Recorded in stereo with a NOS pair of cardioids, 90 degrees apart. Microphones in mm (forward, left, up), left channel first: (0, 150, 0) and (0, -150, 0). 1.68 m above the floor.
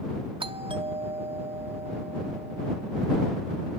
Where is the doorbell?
15° right.